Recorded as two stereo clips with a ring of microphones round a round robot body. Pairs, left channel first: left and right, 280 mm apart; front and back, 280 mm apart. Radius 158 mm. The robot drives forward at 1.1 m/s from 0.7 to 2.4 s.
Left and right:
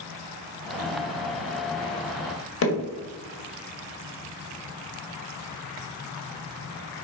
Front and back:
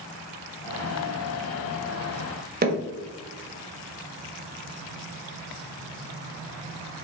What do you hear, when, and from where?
2.6 s hammering: 130° left, 1.6 m